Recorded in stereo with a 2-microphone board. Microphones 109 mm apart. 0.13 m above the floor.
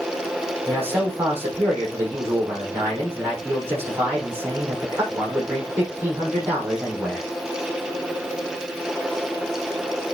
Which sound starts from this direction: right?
A man speaking, at 0.7 s.